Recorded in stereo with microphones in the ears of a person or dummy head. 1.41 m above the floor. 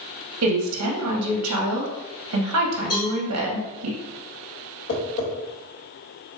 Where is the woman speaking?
90° right, 1.0 m.